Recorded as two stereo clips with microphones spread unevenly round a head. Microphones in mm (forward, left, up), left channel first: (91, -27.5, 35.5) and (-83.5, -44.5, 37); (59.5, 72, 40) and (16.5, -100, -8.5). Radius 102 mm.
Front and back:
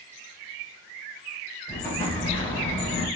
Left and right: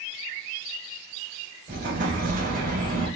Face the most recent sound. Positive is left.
turn(degrees=-60)